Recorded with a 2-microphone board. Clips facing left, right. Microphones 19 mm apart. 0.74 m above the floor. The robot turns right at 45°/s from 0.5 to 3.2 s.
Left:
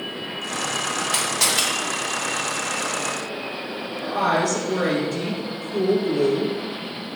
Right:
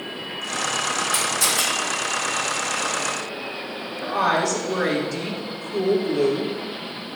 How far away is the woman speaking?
About 1.7 m.